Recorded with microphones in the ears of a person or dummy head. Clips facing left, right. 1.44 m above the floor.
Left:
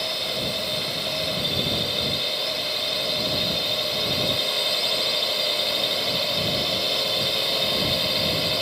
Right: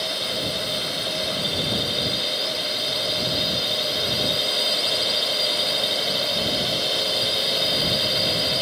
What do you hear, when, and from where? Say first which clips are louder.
0.0 s a drone: right 1 dB; 5° right (ahead or behind)